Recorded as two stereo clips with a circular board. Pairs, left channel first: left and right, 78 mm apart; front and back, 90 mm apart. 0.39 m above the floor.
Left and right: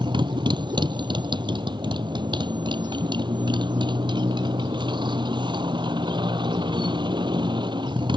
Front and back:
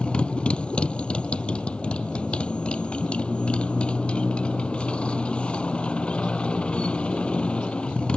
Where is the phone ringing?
I don't hear a phone ringing.